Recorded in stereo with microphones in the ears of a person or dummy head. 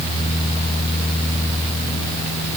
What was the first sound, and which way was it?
Only background noise.